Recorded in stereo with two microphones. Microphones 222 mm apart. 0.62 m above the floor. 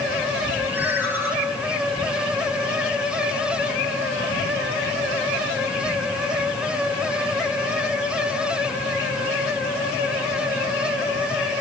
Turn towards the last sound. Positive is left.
turn(degrees=-10)  # may be behind; listen again after turning